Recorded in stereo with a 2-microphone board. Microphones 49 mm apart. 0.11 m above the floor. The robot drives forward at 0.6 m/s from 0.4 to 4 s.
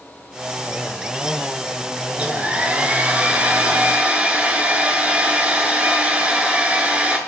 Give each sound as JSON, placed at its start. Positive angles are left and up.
{"t": 2.1, "sound": "a hair dryer", "side_deg": -25, "distance_m": 1.7}